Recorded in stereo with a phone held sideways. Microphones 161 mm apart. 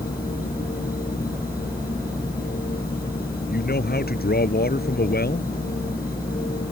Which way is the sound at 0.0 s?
65° left (ahead or behind).